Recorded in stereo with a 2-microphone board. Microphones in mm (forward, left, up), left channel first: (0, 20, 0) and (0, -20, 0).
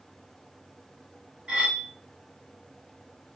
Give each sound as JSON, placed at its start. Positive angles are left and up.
{"t": 1.5, "sound": "cutlery clinking", "side_deg": -30, "distance_m": 1.0}